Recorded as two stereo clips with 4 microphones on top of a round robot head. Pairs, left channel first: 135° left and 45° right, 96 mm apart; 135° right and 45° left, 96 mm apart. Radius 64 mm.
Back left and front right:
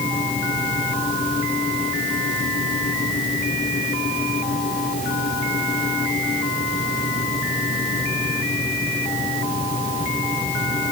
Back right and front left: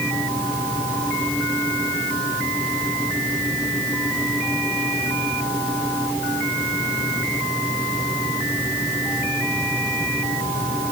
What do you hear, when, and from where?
Only background noise.